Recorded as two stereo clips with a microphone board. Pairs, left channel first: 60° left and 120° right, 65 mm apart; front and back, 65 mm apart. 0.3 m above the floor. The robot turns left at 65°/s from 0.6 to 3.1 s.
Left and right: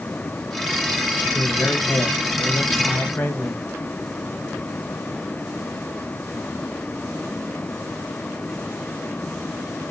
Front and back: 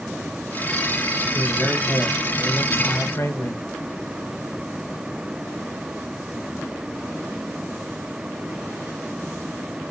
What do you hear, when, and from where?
1.4 s a man speaking: 110° left, 1.4 m; by 3.6 s straight ahead, 1.4 m